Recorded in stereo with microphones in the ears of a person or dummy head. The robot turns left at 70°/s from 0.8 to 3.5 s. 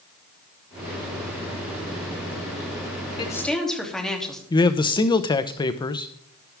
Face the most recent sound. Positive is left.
turn(degrees=20)  # may be behind; listen again after turning